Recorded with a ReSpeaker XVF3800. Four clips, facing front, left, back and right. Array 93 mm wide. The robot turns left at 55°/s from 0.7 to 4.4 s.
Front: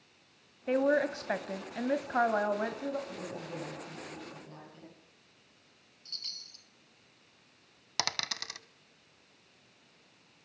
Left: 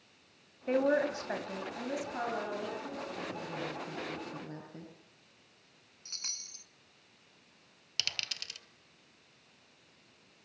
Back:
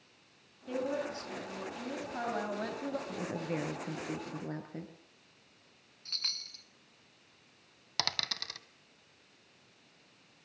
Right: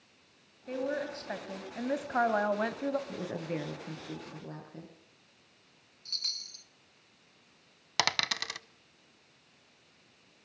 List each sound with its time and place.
0.7 s a woman speaking: 35° left, 2.5 m; by 3.0 s 90° right, 2.5 m
3.1 s a woman speaking: 110° right, 8.5 m; by 4.9 s 175° left, 8.5 m
6.0 s a chime: 155° left, 0.7 m
8.0 s a dropped coin: 85° right, 1.0 m